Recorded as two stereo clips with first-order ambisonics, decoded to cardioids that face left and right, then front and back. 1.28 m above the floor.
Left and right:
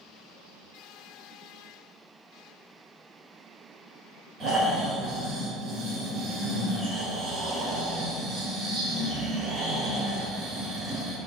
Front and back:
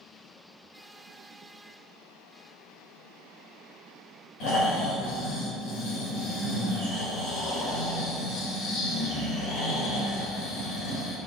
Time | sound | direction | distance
4.4 | snoring | 25° right | 3.5 m